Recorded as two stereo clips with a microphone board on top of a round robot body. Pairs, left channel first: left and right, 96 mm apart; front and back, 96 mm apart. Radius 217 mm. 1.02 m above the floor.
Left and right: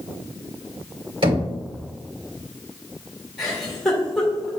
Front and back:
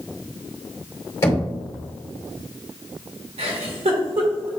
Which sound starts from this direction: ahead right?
Knocking, at 1.2 s.